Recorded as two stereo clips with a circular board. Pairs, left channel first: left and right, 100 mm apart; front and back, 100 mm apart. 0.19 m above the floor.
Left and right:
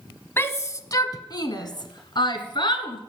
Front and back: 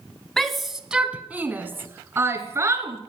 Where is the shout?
80° left, 1.0 m; by 3.0 s 120° left, 2.5 m.